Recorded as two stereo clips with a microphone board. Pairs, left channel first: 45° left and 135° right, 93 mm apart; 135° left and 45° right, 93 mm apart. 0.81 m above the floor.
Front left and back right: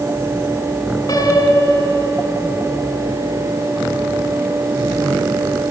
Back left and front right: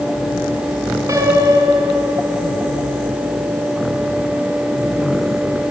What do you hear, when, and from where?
1.1 s a piano: 10° left, 3 m